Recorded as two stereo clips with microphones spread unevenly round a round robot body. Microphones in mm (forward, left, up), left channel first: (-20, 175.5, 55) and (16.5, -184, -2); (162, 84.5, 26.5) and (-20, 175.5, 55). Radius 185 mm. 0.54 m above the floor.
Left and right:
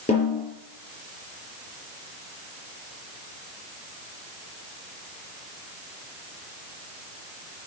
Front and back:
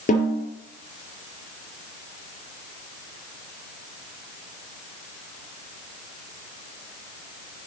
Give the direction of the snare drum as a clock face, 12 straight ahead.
11 o'clock.